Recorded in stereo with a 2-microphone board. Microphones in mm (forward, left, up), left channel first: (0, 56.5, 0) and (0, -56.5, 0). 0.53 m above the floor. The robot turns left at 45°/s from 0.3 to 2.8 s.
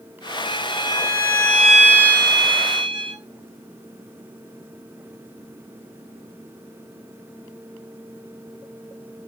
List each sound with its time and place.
0.5 s a violin: 55° left, 3 m; by 3.2 s 50° right, 3 m